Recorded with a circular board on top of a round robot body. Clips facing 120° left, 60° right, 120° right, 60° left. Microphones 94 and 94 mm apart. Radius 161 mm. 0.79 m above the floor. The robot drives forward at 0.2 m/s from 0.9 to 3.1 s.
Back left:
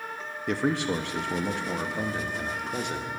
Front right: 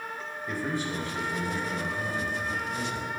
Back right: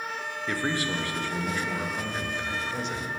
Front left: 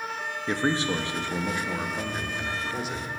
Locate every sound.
0.5 s a man speaking: 125° left, 0.7 m; by 3.1 s 145° left, 1.0 m